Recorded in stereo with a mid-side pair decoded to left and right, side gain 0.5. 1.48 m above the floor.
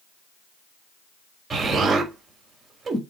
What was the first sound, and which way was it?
An explosion, 35° right.